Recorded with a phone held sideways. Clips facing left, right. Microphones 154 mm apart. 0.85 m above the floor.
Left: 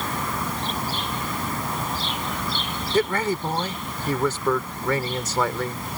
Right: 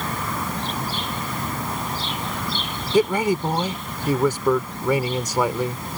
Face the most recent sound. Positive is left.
turn(degrees=-15)  # may be behind; listen again after turning